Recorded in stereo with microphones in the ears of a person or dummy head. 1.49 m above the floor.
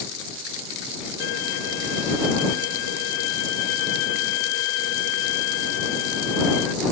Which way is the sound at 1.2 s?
65° left (ahead or behind).